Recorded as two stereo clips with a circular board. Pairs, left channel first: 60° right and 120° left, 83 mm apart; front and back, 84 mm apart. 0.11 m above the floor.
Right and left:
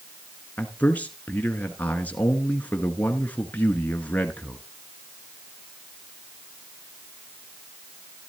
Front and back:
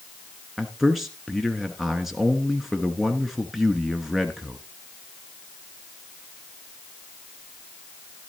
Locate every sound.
0.6 s a man speaking: 95° right, 1.1 m